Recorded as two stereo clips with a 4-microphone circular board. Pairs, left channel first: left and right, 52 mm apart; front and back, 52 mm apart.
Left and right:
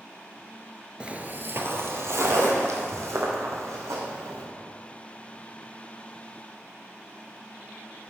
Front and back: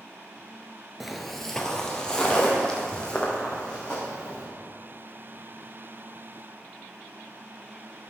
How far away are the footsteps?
About 0.8 m.